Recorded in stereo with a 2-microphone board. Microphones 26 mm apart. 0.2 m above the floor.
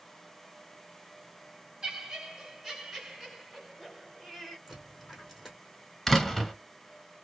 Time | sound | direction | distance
1.8 | laughter | 25° right (ahead or behind) | 1.8 m
4.7 | a dropped coin | 5° right (ahead or behind) | 2 m
6.1 | a door slam | 10° left (ahead or behind) | 0.9 m